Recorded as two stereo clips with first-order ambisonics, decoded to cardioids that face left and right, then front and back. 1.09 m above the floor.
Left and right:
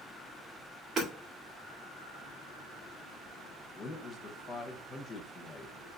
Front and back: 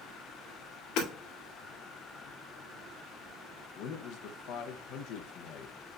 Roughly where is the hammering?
Ahead right.